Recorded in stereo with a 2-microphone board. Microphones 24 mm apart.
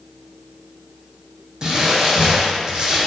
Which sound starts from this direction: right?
Crumpling, at 1.6 s.